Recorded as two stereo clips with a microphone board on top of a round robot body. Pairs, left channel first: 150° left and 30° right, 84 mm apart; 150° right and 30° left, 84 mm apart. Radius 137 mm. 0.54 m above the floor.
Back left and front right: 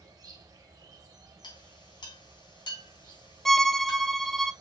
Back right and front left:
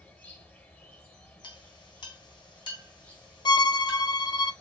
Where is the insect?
80° right, 2 m.